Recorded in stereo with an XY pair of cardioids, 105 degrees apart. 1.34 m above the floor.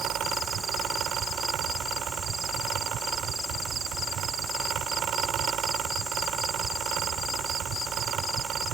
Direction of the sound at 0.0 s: 70° right.